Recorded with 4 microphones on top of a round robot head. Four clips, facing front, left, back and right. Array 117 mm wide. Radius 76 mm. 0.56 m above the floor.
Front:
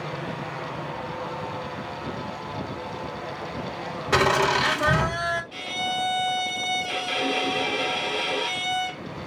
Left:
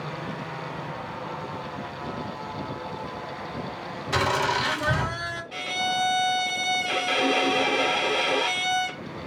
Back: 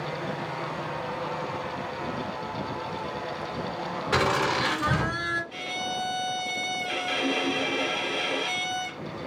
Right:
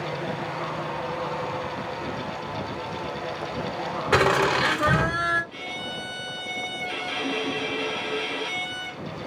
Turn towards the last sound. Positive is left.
turn(degrees=90)